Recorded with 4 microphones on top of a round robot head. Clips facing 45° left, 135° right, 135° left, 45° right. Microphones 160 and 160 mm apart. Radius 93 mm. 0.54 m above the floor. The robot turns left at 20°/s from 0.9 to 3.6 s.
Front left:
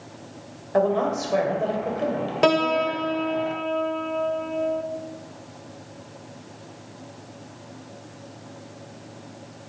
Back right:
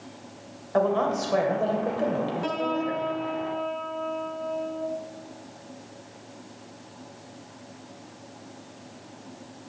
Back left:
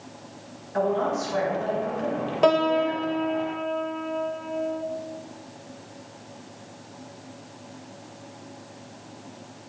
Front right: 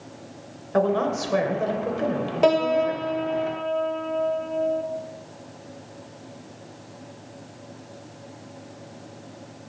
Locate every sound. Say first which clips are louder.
0.7 s a woman speaking: front left 2 dB, front right 2 dB; 35° right, 2.5 m; by 3.1 s 75° right, 2.5 m
2.4 s a piano: front left 7 dB, front right 1 dB; 35° left, 0.7 m; by 4.8 s 15° left, 0.7 m